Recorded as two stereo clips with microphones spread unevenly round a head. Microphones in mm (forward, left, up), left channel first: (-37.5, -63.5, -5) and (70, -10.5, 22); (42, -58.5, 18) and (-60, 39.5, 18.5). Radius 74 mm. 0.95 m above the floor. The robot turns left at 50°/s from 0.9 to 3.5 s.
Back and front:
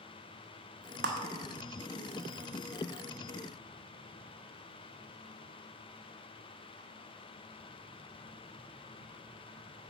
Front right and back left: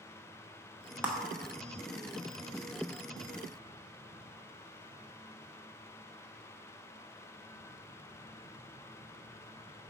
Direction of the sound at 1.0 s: 60° left.